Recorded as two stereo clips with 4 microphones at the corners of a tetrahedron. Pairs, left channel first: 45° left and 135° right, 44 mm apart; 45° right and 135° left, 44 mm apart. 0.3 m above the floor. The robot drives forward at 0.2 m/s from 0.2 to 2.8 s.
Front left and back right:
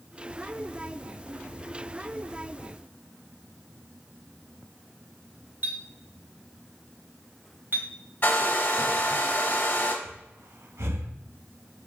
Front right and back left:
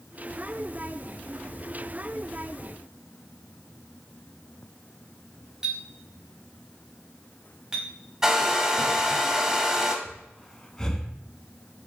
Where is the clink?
160° right, 1.2 m.